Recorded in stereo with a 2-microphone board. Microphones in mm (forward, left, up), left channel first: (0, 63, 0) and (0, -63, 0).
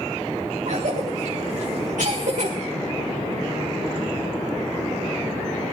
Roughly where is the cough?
Right.